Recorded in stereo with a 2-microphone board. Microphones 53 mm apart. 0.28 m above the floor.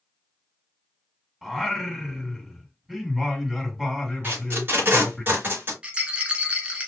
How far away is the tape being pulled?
About 4 m.